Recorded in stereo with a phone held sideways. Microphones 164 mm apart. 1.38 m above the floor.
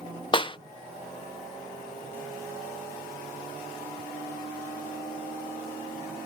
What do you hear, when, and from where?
0.3 s a clap: 30° left (ahead or behind)